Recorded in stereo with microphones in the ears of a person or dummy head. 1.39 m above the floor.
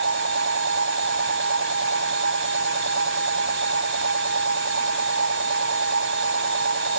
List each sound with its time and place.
0.0 s a machine running: 80° right